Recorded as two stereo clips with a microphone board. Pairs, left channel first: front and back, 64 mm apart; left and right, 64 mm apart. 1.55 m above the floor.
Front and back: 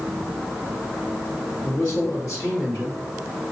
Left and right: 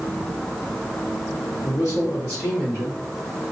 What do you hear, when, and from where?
1.6 s a man speaking: 45° left, 2.5 m; by 3.0 s 25° left, 2.5 m